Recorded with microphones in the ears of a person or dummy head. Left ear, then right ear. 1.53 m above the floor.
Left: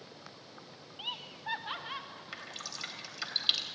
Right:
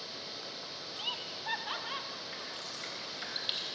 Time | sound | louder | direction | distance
1.0 | laughter | right 1 dB | centre (ahead or behind) | 0.7 m
2.3 | dripping | right 1 dB | 30° left (ahead or behind) | 3 m